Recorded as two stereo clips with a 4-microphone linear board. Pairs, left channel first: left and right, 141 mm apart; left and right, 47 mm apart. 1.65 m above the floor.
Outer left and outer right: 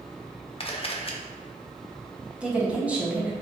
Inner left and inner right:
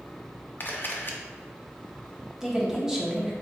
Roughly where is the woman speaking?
Centre.